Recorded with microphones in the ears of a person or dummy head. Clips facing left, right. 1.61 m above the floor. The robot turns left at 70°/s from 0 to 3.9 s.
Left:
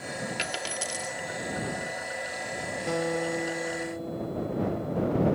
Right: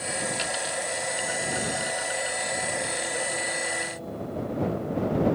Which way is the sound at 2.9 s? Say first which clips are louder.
Left 4 dB; 105° left.